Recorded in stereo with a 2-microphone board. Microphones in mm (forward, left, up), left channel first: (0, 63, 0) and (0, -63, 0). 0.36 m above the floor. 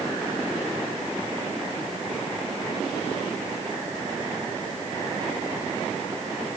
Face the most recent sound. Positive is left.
No sound to turn to.